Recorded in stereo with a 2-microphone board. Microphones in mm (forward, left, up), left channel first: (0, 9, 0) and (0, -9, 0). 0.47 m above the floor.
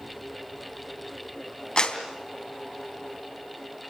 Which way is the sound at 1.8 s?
55° left (ahead or behind).